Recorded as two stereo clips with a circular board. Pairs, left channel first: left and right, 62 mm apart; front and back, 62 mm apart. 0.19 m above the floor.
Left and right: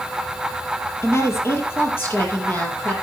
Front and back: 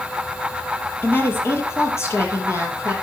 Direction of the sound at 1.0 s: 50° left.